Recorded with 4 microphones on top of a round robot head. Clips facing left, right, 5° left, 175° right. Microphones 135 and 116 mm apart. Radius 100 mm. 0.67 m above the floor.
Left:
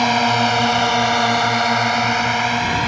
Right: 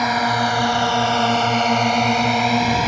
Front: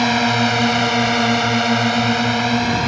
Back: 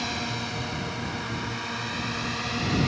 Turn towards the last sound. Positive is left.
turn(degrees=-40)